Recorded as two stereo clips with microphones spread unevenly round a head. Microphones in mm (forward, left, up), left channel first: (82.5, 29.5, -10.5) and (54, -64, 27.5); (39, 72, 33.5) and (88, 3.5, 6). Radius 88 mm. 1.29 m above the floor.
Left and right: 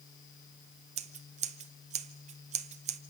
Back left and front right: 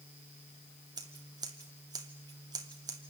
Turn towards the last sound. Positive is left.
turn(degrees=-125)